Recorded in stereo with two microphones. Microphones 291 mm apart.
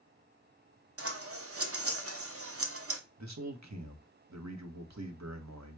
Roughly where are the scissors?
Right.